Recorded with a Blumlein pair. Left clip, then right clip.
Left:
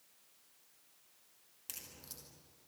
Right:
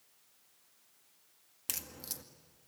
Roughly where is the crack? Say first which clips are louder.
Right 9 dB; ahead right.